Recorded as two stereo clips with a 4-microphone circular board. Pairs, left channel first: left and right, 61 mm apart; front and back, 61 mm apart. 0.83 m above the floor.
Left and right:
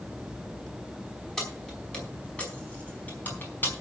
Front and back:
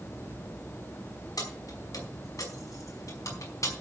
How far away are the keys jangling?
About 5 m.